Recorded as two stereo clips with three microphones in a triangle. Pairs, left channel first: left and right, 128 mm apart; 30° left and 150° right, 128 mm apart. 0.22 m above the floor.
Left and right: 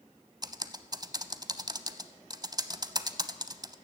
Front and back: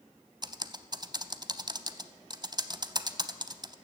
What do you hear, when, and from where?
0.4 s typing on a keyboard: 125° right, 0.5 m